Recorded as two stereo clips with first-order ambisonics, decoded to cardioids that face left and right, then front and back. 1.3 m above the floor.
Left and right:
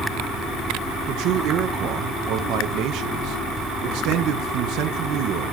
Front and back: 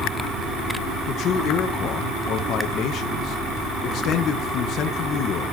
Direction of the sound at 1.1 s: 50° right.